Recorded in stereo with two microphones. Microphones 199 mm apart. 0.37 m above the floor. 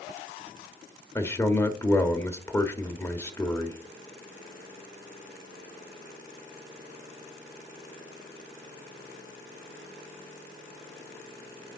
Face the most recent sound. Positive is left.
turn(degrees=10)  # may be behind; listen again after turning